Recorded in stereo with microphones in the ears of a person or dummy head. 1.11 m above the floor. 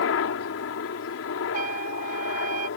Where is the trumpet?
45° right (ahead or behind).